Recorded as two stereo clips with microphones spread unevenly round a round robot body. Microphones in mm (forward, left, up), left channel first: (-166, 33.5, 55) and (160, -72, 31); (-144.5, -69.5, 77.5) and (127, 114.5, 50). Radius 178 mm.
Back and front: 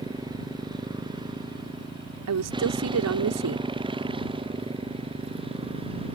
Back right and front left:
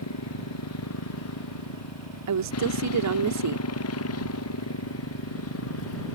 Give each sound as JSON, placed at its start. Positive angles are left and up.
{"t": 0.0, "sound": "a motorcycle", "azimuth_deg": -95}
{"t": 2.3, "sound": "a woman speaking", "azimuth_deg": 15}